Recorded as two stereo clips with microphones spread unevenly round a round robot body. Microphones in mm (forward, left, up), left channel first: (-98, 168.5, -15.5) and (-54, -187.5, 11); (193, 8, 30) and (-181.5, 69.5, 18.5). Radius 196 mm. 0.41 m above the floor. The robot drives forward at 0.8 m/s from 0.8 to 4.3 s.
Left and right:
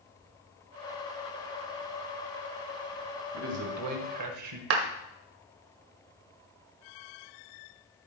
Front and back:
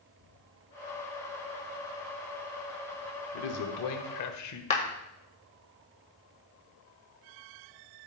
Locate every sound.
3.3 s a man speaking: 30° right, 1.9 m; by 4.6 s 45° right, 1.4 m
4.7 s a clap: 80° right, 1.6 m